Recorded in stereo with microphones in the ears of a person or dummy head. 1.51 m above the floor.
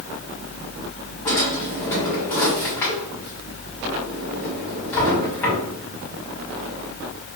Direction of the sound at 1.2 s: 10° left (ahead or behind).